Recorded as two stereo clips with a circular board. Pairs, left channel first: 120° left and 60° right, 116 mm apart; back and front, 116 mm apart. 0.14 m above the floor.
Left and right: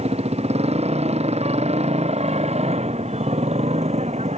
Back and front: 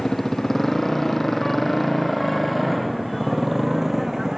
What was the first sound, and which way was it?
A motorcycle, 95° right.